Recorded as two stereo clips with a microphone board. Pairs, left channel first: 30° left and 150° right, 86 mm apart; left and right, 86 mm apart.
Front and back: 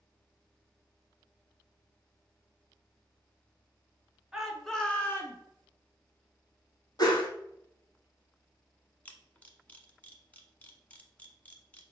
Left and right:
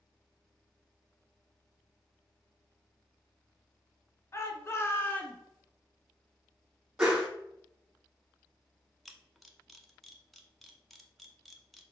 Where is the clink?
I don't hear a clink.